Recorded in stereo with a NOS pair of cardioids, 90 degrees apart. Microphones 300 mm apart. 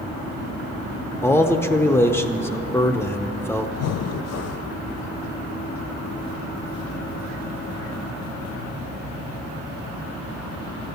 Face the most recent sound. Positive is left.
turn(degrees=60)